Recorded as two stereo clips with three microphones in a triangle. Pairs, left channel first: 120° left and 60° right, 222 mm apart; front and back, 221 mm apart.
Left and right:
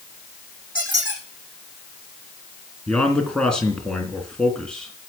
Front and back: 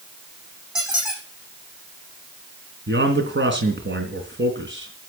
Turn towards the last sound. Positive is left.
turn(degrees=-155)